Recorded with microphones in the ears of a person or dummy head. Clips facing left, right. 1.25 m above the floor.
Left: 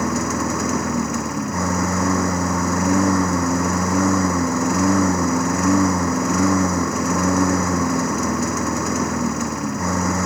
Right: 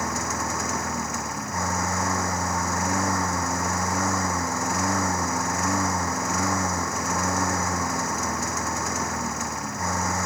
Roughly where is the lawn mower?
Left.